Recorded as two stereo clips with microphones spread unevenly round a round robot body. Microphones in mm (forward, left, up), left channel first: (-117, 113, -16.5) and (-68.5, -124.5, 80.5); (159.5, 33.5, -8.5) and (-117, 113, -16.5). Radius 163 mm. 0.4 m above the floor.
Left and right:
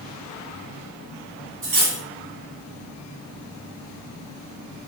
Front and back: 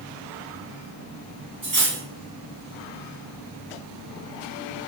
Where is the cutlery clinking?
120° right, 1.6 m.